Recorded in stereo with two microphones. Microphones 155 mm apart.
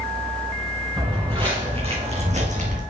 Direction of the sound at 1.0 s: 30° right (ahead or behind).